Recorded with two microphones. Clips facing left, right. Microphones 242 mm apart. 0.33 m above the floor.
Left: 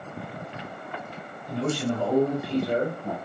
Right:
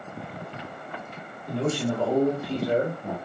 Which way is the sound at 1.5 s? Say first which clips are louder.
Right 1 dB; 55° right (ahead or behind).